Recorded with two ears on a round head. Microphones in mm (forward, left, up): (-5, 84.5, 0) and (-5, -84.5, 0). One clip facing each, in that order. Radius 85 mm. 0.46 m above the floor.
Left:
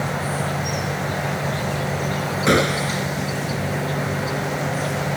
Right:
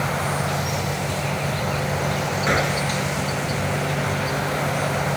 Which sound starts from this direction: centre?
An insect, at 0.0 s.